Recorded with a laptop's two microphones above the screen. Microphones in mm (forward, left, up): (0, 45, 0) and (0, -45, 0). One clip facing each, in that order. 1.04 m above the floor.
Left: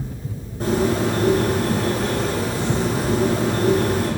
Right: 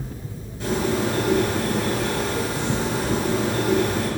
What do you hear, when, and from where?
0.6 s a bird: 40° left (ahead or behind), 2.5 m